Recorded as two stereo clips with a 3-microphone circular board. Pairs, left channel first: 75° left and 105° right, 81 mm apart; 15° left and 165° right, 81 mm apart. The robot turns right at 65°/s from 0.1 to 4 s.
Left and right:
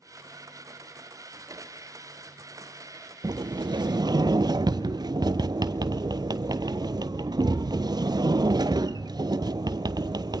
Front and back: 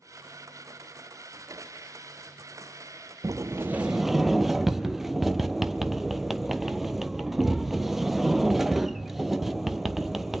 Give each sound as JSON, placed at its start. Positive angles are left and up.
{"t": 3.2, "sound": "a sliding door", "azimuth_deg": -130, "distance_m": 0.7}